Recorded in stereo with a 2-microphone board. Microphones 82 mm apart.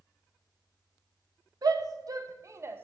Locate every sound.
1.6 s a shout: 55° right (ahead or behind), 1.3 m; by 2.8 s 25° right (ahead or behind), 0.6 m